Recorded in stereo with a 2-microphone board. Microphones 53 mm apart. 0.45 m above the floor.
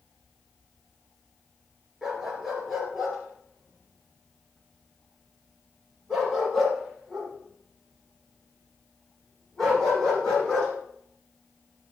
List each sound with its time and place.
2.0 s a dog barking: 5° right (ahead or behind), 3.5 m; by 10.7 s 15° left (ahead or behind), 9.5 m